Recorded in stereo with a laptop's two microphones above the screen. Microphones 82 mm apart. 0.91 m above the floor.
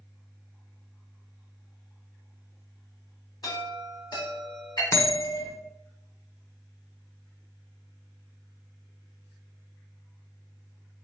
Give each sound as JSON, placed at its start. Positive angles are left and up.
{"t": 3.4, "sound": "a chime", "side_deg": 55, "distance_m": 4.0}
{"t": 4.9, "sound": "a bell", "side_deg": 35, "distance_m": 1.1}